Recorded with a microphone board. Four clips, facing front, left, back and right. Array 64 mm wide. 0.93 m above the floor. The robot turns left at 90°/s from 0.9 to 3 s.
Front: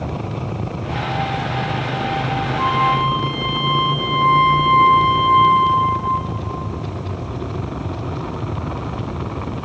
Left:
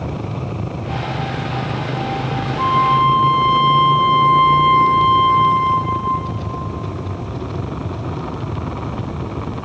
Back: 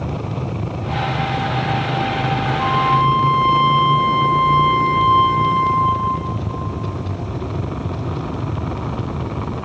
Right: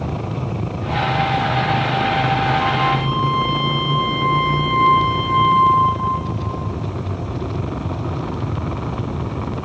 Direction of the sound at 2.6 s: 35° left.